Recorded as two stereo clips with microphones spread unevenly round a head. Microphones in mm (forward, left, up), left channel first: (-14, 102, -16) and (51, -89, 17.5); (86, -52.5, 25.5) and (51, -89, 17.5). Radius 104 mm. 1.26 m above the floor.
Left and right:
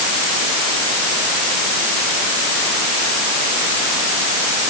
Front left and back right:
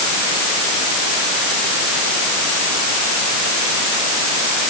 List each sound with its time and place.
Only background noise.